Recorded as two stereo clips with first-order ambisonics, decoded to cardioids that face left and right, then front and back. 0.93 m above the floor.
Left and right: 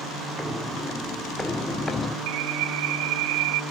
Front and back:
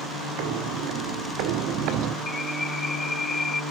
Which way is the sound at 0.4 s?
175° left.